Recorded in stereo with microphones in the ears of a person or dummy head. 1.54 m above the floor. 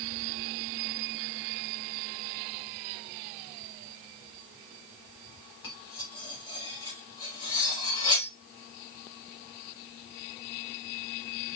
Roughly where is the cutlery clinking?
Left.